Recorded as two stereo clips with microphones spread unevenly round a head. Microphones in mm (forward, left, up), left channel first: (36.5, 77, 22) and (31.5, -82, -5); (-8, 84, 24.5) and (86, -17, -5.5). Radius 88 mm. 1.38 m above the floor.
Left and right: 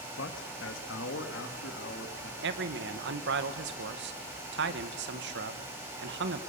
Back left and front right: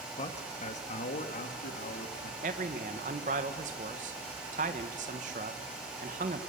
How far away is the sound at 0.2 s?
About 1.9 m.